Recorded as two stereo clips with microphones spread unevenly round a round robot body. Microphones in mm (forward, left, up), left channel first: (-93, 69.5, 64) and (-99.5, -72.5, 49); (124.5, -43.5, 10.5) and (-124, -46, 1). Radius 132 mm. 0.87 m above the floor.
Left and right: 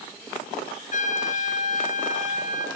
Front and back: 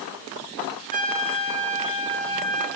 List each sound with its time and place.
0.9 s a trumpet: 115° left, 5 m